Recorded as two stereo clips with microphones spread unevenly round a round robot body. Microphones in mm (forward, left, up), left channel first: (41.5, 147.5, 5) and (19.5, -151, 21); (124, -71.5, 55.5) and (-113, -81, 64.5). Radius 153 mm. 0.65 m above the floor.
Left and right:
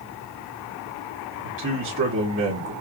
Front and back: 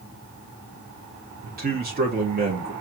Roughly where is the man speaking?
Behind right.